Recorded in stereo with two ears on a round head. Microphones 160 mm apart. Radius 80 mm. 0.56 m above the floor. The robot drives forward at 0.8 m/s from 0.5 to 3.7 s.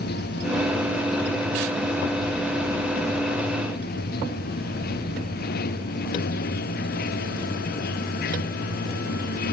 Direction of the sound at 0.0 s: 60° left (ahead or behind).